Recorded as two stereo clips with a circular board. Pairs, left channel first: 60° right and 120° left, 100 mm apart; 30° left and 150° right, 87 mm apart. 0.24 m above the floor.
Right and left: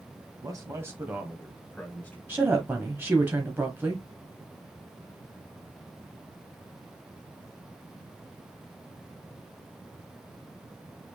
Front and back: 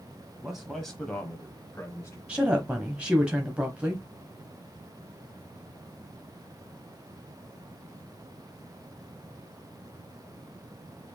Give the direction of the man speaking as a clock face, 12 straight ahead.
8 o'clock.